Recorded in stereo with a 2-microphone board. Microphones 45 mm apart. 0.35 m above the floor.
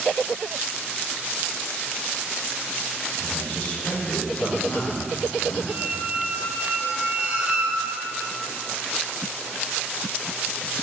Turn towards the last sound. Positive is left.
turn(degrees=-35)  # may be behind; listen again after turning